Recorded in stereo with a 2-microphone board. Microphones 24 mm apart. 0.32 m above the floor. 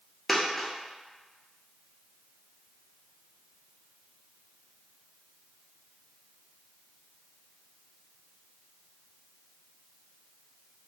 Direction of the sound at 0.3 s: 5° left (ahead or behind).